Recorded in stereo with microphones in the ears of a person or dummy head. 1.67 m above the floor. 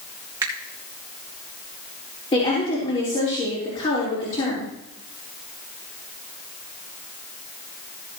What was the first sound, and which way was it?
A finger snap, 20° right (ahead or behind).